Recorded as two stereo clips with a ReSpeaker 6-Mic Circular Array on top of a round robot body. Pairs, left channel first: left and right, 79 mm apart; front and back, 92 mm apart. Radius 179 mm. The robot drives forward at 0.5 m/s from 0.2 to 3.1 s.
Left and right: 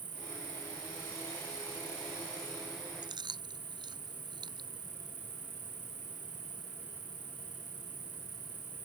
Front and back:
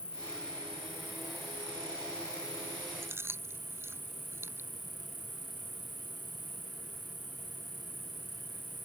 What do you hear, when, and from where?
0.0 s an insect: 75° right; by 8.9 s 110° right
3.0 s chewing: 115° right